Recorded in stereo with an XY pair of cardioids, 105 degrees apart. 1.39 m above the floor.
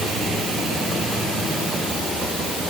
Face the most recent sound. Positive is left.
No sound to turn to.